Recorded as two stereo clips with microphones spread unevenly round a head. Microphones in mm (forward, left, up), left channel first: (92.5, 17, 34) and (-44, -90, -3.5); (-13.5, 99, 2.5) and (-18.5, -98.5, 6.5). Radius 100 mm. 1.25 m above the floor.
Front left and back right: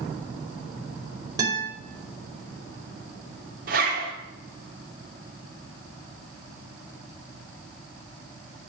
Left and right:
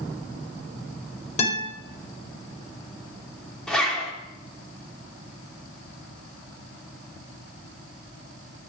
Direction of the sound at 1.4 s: 145° left.